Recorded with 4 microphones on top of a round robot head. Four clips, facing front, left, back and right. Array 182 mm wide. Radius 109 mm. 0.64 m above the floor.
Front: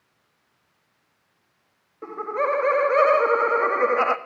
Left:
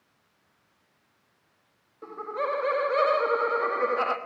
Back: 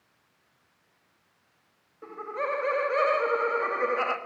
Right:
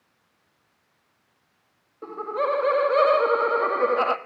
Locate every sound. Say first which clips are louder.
2.0 s laughter: right 5 dB, front 7 dB; 35° right, 1.4 m